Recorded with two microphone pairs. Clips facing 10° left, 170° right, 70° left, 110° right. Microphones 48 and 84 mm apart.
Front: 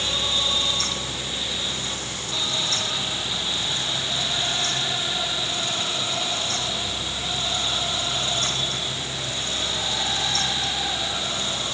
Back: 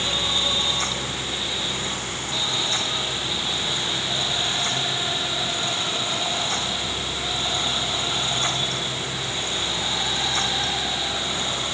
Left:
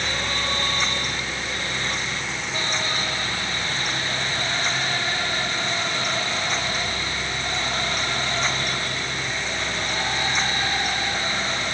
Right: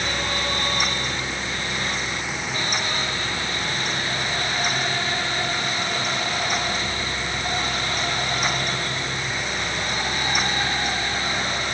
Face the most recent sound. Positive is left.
No sound to turn to.